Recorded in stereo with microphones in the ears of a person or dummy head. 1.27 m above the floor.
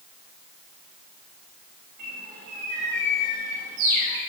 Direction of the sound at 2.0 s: 70° right (ahead or behind).